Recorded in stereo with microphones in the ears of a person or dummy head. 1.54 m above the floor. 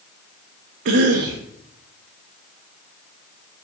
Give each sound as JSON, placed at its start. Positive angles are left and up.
{"t": 0.8, "sound": "a cough", "side_deg": -50, "distance_m": 0.7}